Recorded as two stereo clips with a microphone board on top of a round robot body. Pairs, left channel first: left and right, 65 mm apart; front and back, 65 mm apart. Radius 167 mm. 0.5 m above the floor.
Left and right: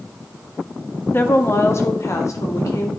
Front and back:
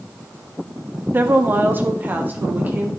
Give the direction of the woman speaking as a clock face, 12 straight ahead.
8 o'clock.